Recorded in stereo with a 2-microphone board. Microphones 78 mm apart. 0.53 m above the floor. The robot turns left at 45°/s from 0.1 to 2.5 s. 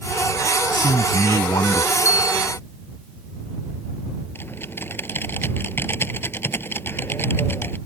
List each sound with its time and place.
0.7 s a man speaking: 90° left; by 1.9 s 40° left
2.0 s a bell: 40° left (ahead or behind); by 2.5 s 60° left (ahead or behind)
4.3 s typing on a keyboard: 30° left (ahead or behind)